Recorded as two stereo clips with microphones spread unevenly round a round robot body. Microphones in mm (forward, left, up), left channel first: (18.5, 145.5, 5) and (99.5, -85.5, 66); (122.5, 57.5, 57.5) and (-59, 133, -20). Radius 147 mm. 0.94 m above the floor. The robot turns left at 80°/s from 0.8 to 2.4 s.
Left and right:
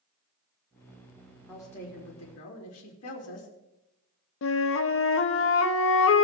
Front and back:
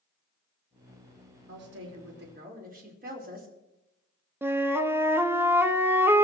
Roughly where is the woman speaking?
Behind.